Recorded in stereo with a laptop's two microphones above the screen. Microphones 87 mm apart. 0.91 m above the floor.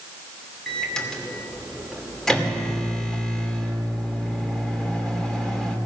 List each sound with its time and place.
0.7 s a microwave: 5° left (ahead or behind), 2.5 m